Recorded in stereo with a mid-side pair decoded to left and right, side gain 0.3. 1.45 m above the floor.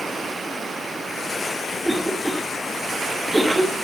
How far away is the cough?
About 3 m.